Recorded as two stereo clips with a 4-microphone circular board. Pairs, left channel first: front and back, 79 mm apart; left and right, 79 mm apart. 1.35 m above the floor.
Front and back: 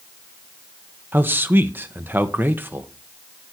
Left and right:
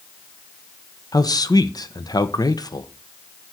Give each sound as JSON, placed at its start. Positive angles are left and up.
{"t": 1.1, "sound": "a man speaking", "azimuth_deg": 120, "distance_m": 1.3}